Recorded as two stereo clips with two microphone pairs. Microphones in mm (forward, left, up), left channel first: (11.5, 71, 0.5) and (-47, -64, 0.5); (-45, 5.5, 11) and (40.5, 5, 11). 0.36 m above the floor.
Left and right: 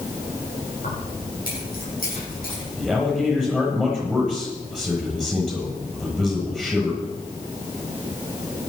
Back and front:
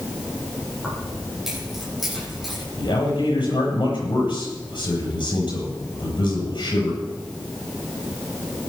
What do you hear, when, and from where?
0.8 s keys jangling: 90° left, 10 m
2.8 s a man speaking: 155° left, 9 m